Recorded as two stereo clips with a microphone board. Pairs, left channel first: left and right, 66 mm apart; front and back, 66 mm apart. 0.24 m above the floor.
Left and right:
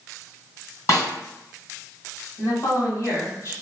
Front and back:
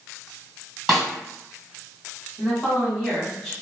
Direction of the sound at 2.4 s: 80° left.